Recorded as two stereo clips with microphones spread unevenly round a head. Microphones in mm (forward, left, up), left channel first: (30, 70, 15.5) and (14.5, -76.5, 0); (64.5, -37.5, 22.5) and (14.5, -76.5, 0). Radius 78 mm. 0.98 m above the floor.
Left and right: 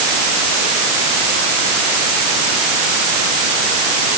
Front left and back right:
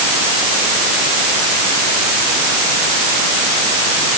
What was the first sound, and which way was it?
Only background noise.